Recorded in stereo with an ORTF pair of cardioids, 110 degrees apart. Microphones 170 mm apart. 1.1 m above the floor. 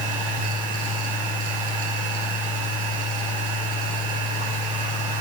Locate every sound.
0.0 s a machine running: 55° right, 2 m